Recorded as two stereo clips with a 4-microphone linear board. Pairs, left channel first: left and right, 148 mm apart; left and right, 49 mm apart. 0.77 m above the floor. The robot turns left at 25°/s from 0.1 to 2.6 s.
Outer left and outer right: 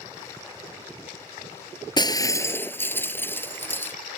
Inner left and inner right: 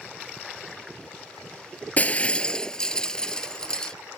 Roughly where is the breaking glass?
Left.